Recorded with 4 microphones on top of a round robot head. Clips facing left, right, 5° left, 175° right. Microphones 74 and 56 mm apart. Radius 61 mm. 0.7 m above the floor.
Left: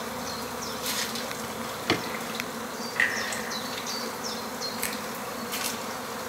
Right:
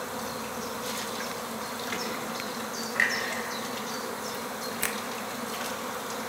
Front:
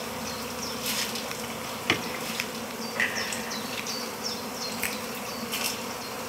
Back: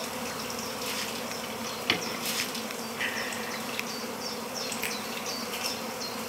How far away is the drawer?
About 1.8 m.